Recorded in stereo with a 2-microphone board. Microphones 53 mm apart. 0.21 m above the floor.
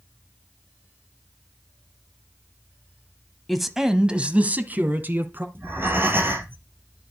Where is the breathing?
40° right (ahead or behind), 3 m.